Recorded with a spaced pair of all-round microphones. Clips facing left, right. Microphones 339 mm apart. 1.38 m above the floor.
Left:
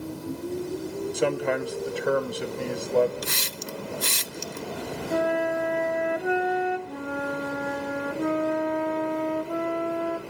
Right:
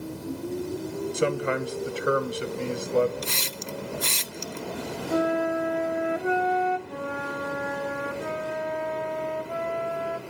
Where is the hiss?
20° left (ahead or behind), 0.5 m.